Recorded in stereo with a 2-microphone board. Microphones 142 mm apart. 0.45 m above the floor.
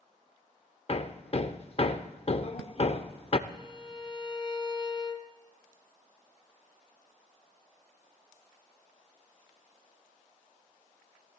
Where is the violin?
35° left (ahead or behind), 1.0 m.